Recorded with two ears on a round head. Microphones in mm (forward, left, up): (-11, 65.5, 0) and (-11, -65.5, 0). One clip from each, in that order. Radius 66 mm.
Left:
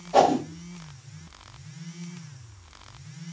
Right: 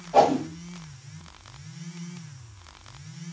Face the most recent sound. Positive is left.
turn(degrees=45)  # may be behind; listen again after turning